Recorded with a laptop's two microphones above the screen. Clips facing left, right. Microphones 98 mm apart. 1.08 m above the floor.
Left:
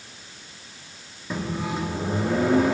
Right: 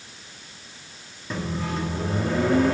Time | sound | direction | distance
1.3 | a microwave | 5° left (ahead or behind) | 2 m